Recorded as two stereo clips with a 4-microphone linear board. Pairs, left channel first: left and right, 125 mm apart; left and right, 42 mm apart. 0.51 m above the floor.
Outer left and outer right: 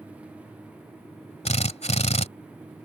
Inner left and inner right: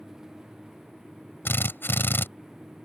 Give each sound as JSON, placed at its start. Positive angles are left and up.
{"t": 1.4, "sound": "a drill", "side_deg": 65}